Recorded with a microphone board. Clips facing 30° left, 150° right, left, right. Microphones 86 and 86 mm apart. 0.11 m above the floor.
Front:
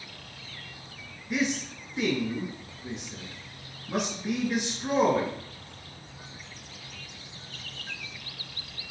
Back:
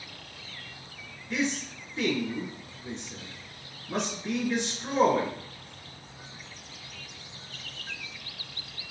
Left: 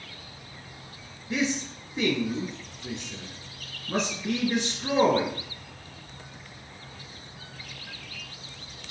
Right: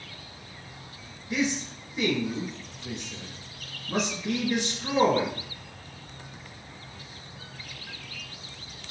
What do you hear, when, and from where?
1.3 s a man speaking: 95° left, 1.9 m